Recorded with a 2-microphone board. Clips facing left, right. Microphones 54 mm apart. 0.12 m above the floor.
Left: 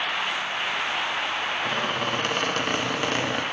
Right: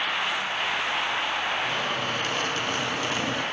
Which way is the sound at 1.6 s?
50° left (ahead or behind).